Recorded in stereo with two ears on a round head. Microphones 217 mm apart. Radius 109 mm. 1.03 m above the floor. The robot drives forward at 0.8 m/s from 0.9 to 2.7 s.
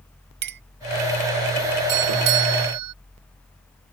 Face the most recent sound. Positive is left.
turn(degrees=-75)  # may be behind; listen again after turning